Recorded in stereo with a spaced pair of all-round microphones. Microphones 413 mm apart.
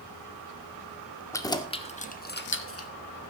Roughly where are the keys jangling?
Centre.